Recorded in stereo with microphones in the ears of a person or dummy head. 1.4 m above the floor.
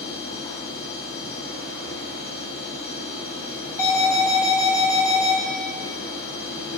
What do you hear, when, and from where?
0.0 s a machine running: 30° left (ahead or behind), 4 m
3.8 s an alarm: 10° left (ahead or behind), 1.9 m